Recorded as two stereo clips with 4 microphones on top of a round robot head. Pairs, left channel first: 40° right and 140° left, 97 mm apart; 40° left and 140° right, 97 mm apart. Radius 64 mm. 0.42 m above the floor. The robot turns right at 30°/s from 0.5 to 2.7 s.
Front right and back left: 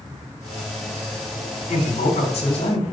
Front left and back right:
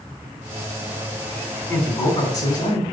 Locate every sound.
1.7 s a man speaking: 35° right, 3 m; by 2.8 s 5° right, 3 m